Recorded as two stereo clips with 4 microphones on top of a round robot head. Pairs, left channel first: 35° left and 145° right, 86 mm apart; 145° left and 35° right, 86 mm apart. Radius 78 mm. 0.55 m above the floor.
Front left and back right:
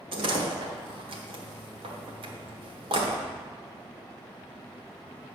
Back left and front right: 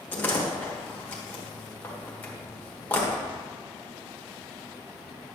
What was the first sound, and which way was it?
A door slam, 145° right.